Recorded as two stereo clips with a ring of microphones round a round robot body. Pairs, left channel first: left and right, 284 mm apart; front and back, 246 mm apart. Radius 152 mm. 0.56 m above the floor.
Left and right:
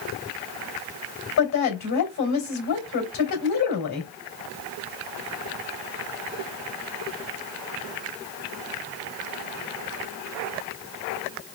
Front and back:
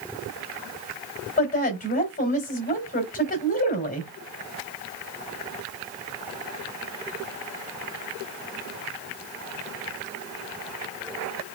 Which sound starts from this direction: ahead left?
A woman speaking, at 1.4 s.